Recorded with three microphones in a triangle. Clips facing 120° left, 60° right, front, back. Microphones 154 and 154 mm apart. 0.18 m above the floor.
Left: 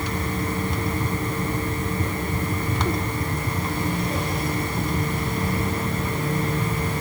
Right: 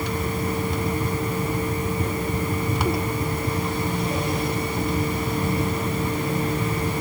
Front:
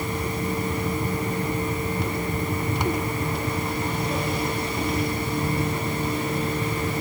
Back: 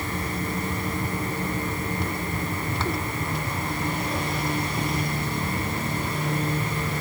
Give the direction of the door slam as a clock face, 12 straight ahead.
No door slam in this recording.